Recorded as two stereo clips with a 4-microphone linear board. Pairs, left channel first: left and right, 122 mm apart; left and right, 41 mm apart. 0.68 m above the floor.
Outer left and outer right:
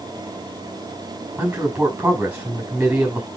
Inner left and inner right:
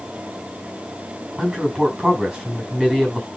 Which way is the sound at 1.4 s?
10° right (ahead or behind).